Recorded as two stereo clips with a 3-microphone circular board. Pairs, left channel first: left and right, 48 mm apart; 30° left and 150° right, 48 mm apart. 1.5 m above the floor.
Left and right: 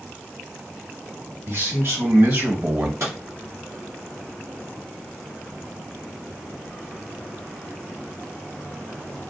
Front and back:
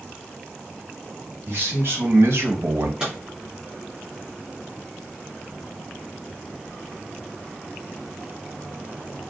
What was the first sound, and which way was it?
A man speaking, 115° right.